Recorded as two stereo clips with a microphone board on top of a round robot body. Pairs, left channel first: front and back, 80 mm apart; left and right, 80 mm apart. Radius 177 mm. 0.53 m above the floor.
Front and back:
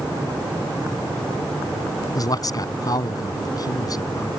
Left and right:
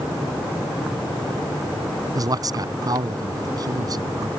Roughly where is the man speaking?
Ahead right.